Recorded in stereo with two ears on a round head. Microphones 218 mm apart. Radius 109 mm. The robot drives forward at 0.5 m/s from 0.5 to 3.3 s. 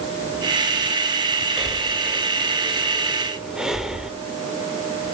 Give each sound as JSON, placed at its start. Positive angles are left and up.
{"t": 1.6, "sound": "breathing", "side_deg": 0, "distance_m": 2.0}